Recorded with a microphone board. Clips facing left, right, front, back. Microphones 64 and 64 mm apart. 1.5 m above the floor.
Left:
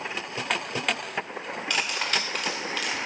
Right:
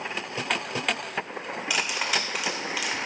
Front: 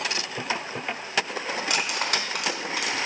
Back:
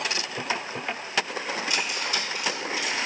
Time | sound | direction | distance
1.7 | cutlery clinking | 10° right | 1.2 m